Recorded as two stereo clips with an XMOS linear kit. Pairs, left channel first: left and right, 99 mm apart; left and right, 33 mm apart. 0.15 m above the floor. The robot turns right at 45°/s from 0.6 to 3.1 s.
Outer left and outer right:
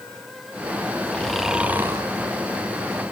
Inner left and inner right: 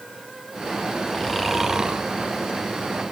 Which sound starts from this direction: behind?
Snoring, at 1.1 s.